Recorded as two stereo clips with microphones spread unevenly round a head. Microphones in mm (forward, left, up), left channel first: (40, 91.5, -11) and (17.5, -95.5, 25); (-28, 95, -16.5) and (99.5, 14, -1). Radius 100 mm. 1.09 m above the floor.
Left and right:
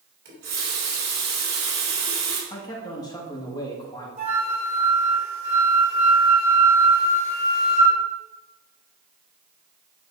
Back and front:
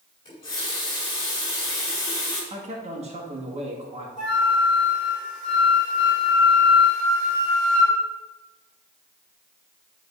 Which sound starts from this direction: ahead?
A man speaking, at 2.5 s.